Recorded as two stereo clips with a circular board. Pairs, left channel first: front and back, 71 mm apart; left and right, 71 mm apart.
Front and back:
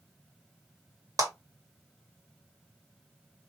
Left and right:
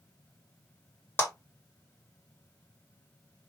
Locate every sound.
1.2 s a clap: 150° left, 1.7 m